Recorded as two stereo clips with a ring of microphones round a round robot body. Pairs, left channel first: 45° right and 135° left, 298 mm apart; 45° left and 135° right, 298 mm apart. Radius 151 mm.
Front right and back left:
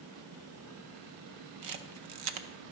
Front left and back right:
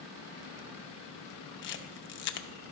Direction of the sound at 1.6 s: 100° left.